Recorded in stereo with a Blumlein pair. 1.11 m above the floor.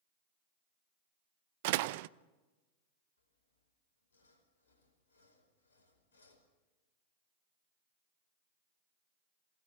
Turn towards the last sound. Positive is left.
turn(degrees=70)